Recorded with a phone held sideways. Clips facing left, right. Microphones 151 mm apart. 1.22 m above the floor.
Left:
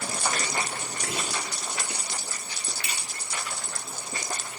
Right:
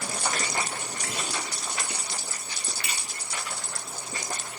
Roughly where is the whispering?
Left.